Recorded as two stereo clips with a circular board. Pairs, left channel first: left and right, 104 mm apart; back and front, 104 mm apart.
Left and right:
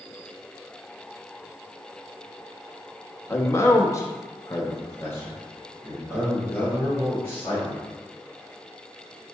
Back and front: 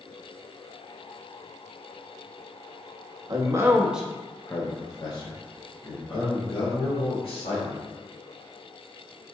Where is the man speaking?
30° left, 0.8 m; by 7.8 s 165° left, 2.5 m.